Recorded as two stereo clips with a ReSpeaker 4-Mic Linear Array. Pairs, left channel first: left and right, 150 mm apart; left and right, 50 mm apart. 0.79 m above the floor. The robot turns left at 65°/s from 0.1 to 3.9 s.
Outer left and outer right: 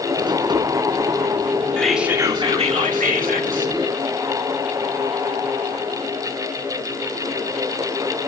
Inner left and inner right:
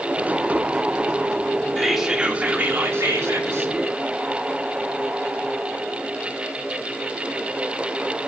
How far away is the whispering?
About 2 m.